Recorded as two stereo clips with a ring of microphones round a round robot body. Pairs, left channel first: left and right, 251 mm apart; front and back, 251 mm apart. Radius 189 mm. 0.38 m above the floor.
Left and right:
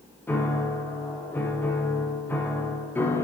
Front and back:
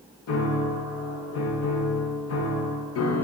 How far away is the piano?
About 0.5 m.